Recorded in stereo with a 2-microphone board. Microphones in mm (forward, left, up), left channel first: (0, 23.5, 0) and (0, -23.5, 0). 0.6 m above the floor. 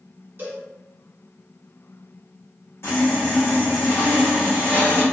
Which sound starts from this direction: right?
A cowbell, at 0.4 s.